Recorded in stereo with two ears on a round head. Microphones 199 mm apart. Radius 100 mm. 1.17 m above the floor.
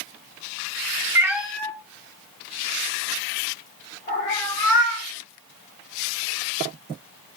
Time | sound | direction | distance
1.1 | a cat meowing | 10° right (ahead or behind) | 0.6 m